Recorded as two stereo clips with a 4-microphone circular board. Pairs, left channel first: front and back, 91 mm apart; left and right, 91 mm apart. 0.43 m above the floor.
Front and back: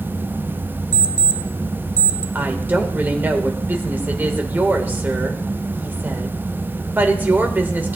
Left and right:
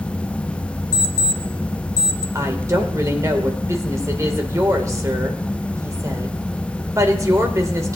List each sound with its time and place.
0.9 s an alarm clock: 135° left, 0.9 m
2.4 s a woman speaking: 120° right, 1.3 m